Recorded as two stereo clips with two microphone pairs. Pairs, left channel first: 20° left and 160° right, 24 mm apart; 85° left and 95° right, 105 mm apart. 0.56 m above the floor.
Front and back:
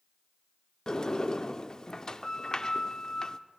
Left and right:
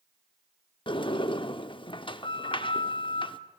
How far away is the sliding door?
About 0.8 m.